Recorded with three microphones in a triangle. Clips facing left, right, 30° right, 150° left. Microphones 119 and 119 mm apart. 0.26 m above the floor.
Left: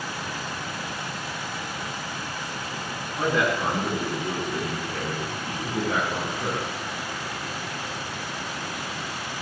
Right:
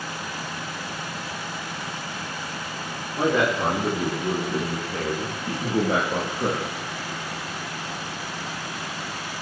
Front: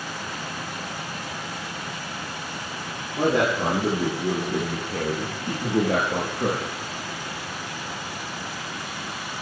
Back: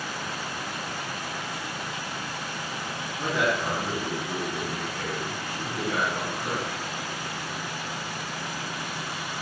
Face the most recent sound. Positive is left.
turn(degrees=-35)